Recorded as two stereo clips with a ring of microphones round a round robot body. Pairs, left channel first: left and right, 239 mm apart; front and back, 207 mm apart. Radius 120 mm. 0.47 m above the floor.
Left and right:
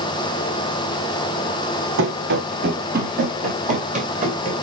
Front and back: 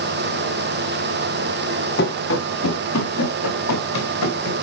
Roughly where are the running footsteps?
Ahead right.